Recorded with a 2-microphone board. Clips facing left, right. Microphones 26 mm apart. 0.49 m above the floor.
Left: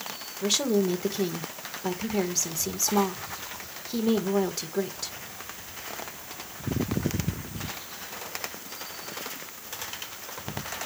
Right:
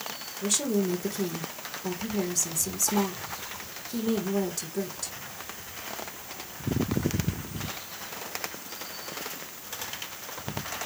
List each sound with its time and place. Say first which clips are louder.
0.4 s a woman speaking: left 3 dB; 30° left (ahead or behind), 1.5 m